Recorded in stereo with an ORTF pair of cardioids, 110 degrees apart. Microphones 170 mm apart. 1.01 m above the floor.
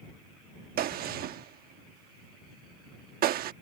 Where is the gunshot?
60° right.